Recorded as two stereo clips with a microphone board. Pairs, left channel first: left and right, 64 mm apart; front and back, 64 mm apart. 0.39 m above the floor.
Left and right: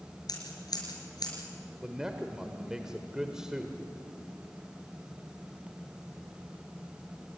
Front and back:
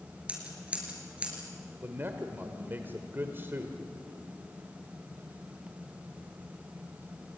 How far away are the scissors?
About 4.5 m.